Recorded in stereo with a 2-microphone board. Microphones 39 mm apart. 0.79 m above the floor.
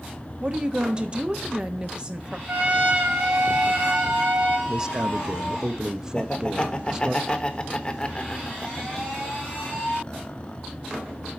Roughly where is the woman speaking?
Right.